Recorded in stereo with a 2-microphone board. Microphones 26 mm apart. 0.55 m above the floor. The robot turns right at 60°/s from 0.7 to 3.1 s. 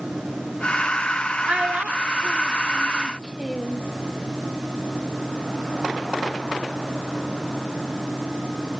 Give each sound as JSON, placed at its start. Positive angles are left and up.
{"t": 1.4, "sound": "a child speaking", "side_deg": -50, "distance_m": 0.8}